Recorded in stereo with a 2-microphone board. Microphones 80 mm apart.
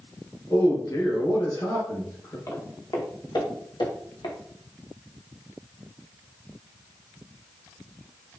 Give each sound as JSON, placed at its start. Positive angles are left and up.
{"t": 0.5, "sound": "a man speaking", "side_deg": 50, "distance_m": 1.7}
{"t": 2.5, "sound": "footsteps", "side_deg": 45, "distance_m": 1.4}